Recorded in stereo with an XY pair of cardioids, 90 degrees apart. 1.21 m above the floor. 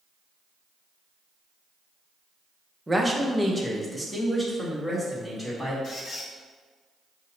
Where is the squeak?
60° left, 1.3 m.